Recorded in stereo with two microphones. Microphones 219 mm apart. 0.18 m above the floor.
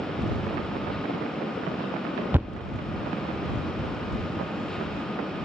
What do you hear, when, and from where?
2.3 s a thud: 10° right (ahead or behind)